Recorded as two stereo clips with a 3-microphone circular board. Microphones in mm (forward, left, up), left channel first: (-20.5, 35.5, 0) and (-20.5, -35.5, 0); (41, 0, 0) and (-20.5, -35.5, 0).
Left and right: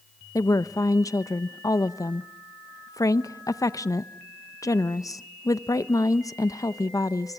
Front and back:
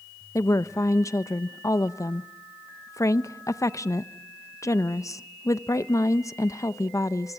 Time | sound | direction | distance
0.3 | a woman speaking | 65° left | 0.7 m